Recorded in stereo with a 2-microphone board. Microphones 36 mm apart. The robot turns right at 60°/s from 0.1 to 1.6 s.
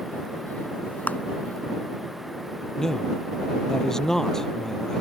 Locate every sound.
1.1 s a clap: 45° left (ahead or behind)
2.8 s a man speaking: 15° left (ahead or behind)